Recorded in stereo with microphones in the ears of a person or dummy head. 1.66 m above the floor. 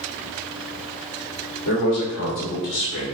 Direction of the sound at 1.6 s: 60° left (ahead or behind).